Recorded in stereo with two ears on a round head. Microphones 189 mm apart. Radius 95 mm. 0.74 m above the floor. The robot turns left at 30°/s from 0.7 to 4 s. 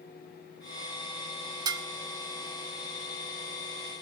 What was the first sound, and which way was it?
Dishes clattering, 20° right (ahead or behind).